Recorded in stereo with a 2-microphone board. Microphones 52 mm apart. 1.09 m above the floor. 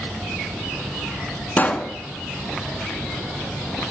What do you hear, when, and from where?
1.6 s a pop: 30° left (ahead or behind), 2 m